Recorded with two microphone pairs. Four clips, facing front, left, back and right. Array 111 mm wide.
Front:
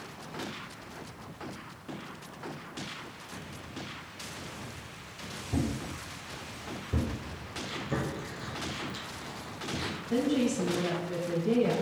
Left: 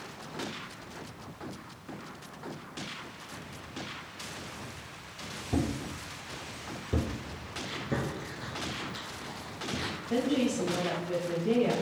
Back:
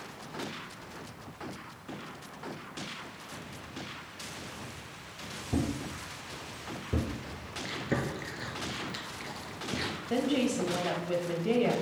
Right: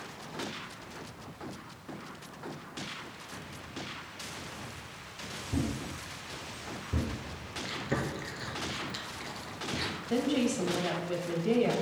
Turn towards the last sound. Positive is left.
turn(degrees=-150)